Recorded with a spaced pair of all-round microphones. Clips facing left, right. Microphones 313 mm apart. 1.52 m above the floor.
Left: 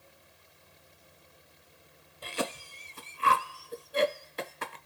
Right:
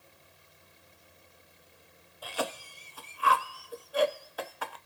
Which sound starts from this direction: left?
A cough, at 2.2 s.